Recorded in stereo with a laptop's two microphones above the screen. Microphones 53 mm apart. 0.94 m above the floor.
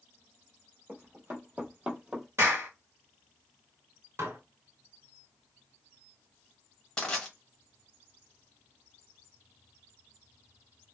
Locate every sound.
0.9 s running footsteps: 50° right (ahead or behind), 1.3 m; by 2.3 s 10° right (ahead or behind), 1.1 m
2.4 s a clap: 60° right (ahead or behind), 1.2 m
4.2 s dishes clattering: 55° right (ahead or behind), 0.6 m
7.0 s crushing: 10° left (ahead or behind), 1.0 m